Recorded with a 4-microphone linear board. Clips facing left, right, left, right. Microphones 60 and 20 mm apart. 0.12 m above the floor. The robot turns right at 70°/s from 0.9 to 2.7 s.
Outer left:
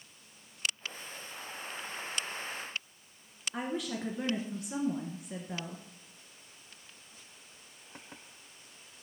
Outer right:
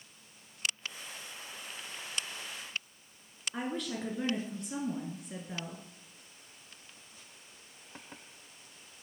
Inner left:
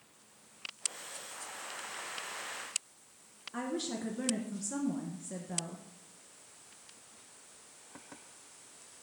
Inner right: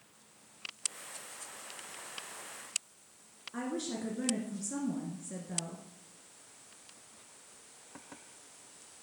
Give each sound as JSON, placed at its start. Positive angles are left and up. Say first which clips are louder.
{"t": 3.5, "sound": "a woman speaking", "louder": "outer left 1 dB, even", "side_deg": 5, "distance_m": 1.4}